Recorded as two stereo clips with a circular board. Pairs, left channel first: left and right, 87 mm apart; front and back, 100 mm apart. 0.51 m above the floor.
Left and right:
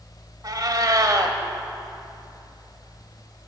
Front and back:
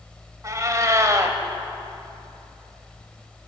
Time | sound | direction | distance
0.4 | a cat meowing | 125° right | 1.3 m